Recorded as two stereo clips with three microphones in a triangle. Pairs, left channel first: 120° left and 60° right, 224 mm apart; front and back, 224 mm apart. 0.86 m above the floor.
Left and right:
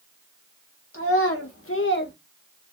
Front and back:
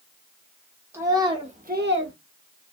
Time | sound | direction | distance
0.9 | a child speaking | 100° left | 1.1 m